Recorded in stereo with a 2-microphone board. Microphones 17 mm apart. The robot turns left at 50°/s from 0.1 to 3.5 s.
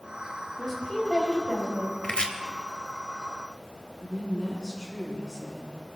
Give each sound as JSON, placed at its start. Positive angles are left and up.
{"t": 0.6, "sound": "a woman speaking", "azimuth_deg": 175, "distance_m": 4.5}
{"t": 2.0, "sound": "chopping", "side_deg": 65, "distance_m": 1.4}
{"t": 4.0, "sound": "a woman speaking", "side_deg": -5, "distance_m": 8.0}